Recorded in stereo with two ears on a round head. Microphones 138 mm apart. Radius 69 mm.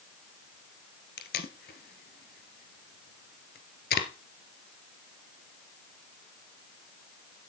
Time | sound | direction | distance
1.2 | tape being pulled | 65° left (ahead or behind) | 1.6 m